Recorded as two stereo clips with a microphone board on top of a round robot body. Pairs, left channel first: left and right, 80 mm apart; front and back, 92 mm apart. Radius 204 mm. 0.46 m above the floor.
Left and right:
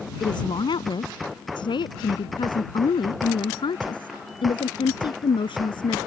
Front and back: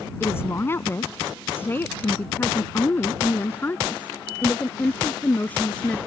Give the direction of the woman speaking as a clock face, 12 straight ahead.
10 o'clock.